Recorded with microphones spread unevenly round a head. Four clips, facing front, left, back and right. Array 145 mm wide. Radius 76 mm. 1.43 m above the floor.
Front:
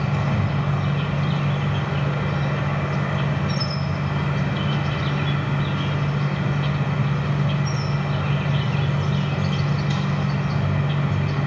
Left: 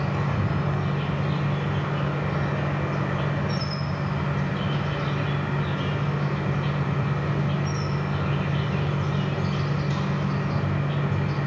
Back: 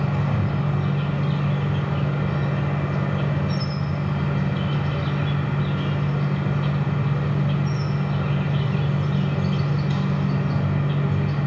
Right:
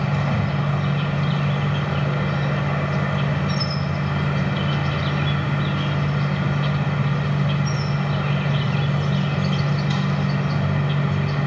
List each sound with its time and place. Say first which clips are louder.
0.0 s an insect: right 4 dB, front 1 dB; 65° right, 2 m